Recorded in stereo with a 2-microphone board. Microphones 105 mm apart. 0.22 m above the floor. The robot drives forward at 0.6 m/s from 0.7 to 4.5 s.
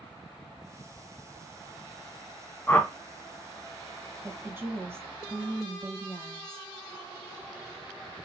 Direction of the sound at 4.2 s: 25° right (ahead or behind).